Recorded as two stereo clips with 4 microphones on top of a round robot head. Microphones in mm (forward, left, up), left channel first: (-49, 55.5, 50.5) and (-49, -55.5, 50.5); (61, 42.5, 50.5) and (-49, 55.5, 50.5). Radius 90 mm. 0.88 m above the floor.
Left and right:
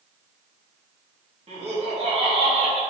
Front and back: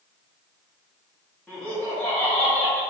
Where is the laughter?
85° right, 2.0 m.